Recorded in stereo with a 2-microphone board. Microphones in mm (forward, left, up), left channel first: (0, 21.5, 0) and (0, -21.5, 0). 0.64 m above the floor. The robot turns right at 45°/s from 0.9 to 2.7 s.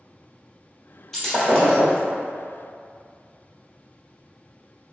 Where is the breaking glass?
15° left, 1.2 m; by 2.0 s 50° left, 1.2 m.